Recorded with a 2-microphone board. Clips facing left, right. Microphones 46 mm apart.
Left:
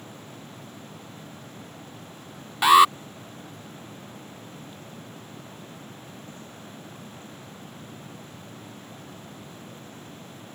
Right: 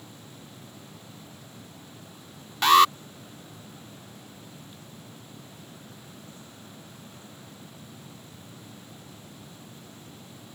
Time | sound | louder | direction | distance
2.6 | an alarm | left 2 dB | 10° left (ahead or behind) | ?